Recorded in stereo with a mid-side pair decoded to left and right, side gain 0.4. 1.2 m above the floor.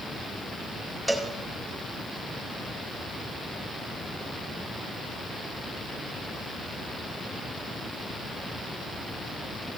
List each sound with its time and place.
1.1 s a cowbell: 10° right, 1.7 m